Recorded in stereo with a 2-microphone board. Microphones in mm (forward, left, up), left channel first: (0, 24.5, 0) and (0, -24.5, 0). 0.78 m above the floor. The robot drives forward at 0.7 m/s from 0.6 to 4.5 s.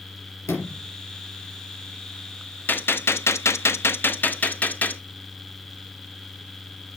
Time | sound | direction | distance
0.4 | a sliding door | 80° left | 4 m
2.7 | a gunshot | 40° left (ahead or behind) | 0.8 m